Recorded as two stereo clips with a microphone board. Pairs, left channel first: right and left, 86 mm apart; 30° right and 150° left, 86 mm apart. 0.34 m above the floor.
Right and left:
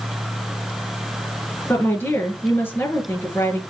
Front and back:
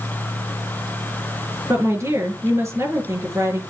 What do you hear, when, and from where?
1.7 s a woman speaking: 155° right, 5.5 m